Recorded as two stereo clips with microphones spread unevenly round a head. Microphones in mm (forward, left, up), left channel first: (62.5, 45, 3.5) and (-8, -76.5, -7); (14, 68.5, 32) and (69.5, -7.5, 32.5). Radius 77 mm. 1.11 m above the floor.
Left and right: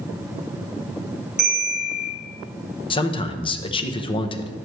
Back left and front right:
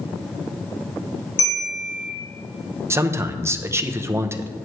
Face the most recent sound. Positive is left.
turn(degrees=5)